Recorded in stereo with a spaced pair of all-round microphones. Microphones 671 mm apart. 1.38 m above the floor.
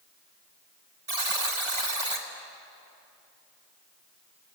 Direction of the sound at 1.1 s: 45° right (ahead or behind).